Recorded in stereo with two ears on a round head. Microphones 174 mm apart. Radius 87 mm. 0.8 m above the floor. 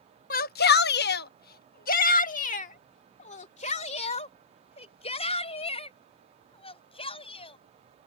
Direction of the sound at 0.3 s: 45° left (ahead or behind).